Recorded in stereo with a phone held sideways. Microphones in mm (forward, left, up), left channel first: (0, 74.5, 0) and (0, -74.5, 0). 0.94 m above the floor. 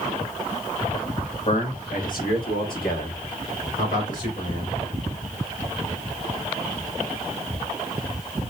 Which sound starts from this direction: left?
A man speaking, at 1.5 s.